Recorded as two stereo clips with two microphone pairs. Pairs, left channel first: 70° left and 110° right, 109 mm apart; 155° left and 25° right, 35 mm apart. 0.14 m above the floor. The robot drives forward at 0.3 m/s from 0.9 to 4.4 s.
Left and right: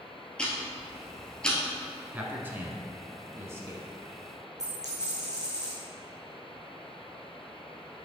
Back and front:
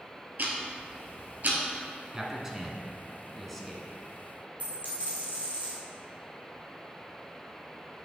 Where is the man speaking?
60° right, 1.1 m; by 3.9 s 130° right, 1.1 m.